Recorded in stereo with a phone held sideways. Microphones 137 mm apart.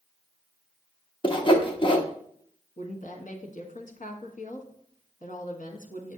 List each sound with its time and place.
1.2 s sawing: 35° left (ahead or behind), 0.8 m
2.8 s a woman speaking: 70° left (ahead or behind), 1.2 m